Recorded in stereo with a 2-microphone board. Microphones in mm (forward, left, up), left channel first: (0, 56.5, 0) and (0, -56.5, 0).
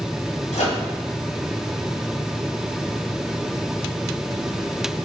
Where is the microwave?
85° left, 1.7 m.